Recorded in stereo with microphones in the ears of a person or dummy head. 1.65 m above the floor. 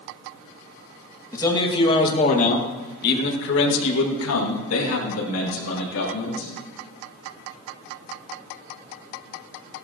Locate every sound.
1.3 s a man speaking: 20° left (ahead or behind), 2.5 m; by 6.5 s 70° left (ahead or behind), 3.5 m